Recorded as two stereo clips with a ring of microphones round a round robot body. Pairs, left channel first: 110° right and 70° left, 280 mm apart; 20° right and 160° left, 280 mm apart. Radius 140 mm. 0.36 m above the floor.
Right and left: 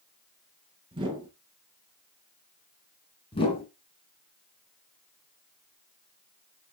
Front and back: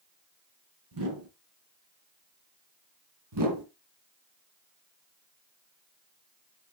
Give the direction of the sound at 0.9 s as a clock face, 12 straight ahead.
7 o'clock.